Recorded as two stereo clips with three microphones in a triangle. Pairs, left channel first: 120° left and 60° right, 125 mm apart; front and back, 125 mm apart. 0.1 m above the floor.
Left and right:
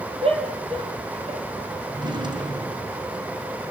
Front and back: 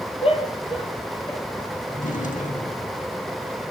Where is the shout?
30° right, 3 m; by 1.4 s 45° right, 3 m.